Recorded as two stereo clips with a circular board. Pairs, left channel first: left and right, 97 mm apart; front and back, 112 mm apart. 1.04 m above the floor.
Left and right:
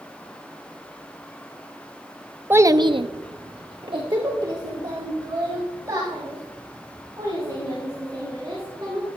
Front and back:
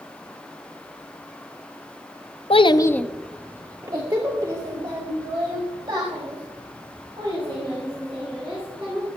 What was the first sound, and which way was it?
A child speaking, 25° right.